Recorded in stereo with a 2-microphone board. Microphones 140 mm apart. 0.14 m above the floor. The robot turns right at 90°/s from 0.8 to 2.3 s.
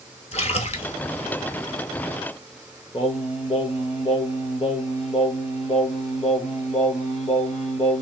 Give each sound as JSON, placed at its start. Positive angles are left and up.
{"t": 0.3, "sound": "a splash", "side_deg": 50, "distance_m": 0.6}
{"t": 2.9, "sound": "singing", "side_deg": 45, "distance_m": 0.7}